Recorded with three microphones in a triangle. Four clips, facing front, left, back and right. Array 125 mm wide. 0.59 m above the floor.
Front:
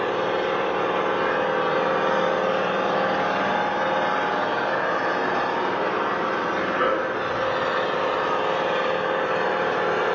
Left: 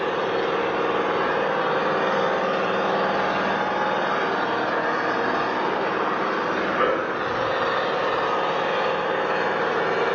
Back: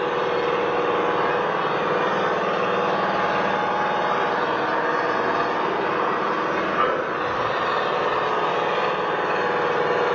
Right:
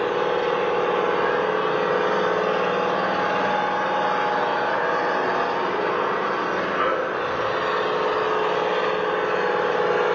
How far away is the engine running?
About 2 m.